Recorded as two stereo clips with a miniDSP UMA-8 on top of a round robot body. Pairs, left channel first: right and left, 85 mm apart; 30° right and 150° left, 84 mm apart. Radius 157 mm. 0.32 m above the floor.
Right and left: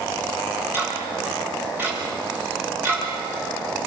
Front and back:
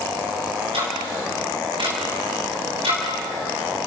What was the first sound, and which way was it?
Ticking, 155° left.